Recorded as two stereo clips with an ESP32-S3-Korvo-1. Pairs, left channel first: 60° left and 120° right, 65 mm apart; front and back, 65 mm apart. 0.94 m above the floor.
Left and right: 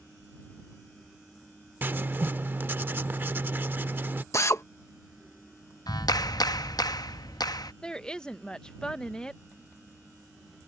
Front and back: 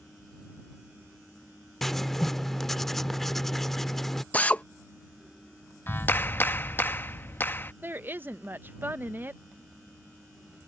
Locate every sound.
1.8 s writing: 85° right
4.3 s a drill: 60° left
5.9 s a clap: 55° left
7.8 s a woman speaking: 135° left